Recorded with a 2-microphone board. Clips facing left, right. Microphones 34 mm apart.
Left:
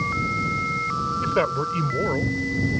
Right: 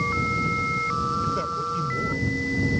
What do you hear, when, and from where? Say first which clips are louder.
1.2 s a man speaking: left 4 dB; 55° left (ahead or behind)